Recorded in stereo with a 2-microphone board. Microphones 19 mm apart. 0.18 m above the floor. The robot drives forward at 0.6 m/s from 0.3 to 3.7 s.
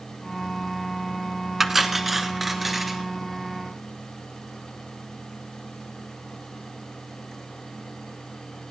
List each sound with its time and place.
1.6 s cutlery clinking: 10° right (ahead or behind), 0.9 m; by 3.0 s 5° right (ahead or behind), 1.6 m